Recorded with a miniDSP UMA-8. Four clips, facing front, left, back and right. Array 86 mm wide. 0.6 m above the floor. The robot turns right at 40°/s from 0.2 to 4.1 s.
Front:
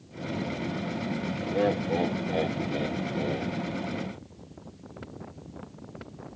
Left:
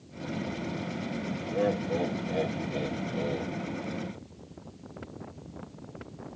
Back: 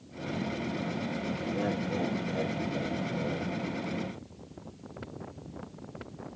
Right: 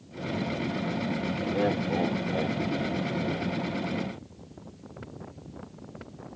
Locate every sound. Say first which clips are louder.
1.5 s laughter: even, front 7 dB; 50° right, 1.2 m; by 3.5 s 35° left, 1.2 m